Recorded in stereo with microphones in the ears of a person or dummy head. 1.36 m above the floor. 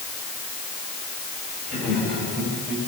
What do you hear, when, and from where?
1.7 s laughter: 5° left (ahead or behind), 9 m; by 2.8 s centre (ahead or behind), 8 m